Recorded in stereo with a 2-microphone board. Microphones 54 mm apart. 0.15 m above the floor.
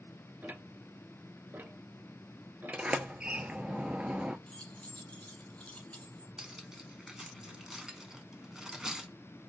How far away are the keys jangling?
About 1.0 m.